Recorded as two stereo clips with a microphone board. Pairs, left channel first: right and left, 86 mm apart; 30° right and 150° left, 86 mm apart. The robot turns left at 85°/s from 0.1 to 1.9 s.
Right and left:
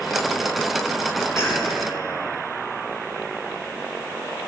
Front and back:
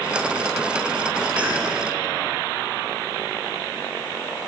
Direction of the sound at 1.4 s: 135° right.